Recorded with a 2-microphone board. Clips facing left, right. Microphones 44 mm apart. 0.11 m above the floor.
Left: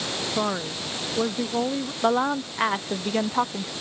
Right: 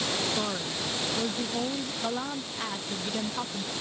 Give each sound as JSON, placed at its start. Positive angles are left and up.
{"t": 0.3, "sound": "a woman speaking", "side_deg": 35}
{"t": 2.0, "sound": "a woman speaking", "side_deg": 45}